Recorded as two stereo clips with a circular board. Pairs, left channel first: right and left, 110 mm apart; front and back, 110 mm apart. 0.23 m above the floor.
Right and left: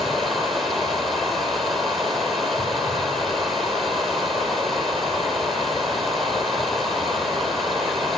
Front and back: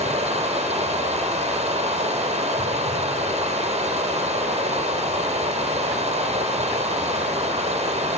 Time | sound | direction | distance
0.0 | running water | straight behind | 7 m